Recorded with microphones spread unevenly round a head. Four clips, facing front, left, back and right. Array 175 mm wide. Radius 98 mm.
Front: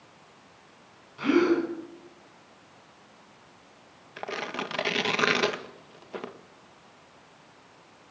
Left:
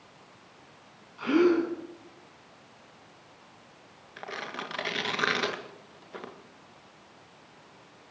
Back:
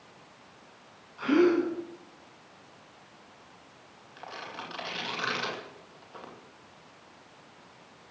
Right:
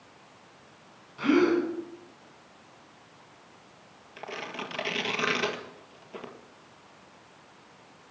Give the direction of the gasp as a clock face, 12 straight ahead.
1 o'clock.